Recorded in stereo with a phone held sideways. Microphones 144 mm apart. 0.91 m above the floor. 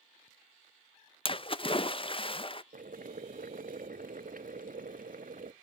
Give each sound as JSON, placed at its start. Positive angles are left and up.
{"t": 1.2, "sound": "a splash", "side_deg": 40, "distance_m": 0.5}
{"t": 2.7, "sound": "boiling", "side_deg": -70, "distance_m": 0.6}